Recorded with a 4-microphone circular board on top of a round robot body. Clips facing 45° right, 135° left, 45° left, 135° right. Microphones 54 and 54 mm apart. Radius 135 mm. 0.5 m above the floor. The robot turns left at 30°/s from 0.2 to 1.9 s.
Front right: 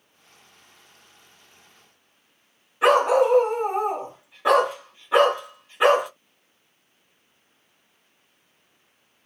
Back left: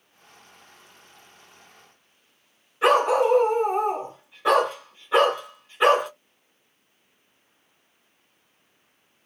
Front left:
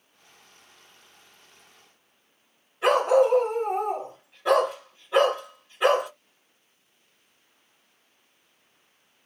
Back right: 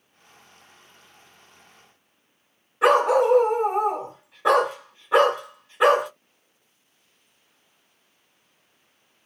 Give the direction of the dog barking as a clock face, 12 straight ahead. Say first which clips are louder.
Front right 1 dB, back right 2 dB; 4 o'clock.